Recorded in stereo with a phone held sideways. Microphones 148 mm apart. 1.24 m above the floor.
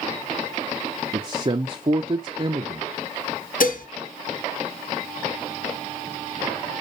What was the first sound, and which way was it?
A man speaking, 35° right (ahead or behind).